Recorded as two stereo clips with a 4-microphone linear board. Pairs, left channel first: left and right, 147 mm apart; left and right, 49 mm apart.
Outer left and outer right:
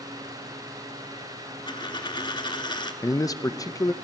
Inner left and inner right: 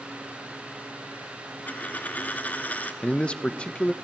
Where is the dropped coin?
30° left (ahead or behind), 1.0 m.